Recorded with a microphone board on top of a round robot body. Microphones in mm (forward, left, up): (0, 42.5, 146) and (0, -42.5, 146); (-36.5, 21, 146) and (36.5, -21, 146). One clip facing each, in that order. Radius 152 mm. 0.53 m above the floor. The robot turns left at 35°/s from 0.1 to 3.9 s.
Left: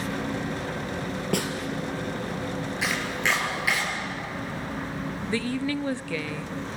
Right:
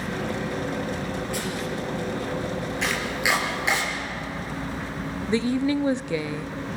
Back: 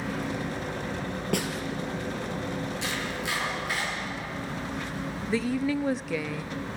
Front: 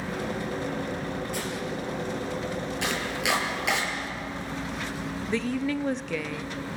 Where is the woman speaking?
130° right, 0.9 m.